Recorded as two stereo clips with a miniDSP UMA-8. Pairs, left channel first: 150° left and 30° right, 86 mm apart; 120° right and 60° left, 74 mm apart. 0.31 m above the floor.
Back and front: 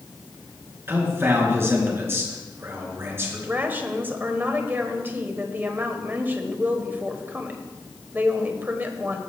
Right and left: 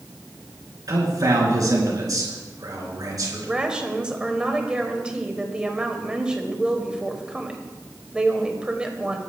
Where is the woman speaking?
Straight ahead, 1.4 m.